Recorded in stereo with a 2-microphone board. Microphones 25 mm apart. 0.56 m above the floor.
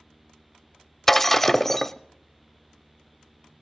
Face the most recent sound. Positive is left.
turn(degrees=10)  # may be behind; listen again after turning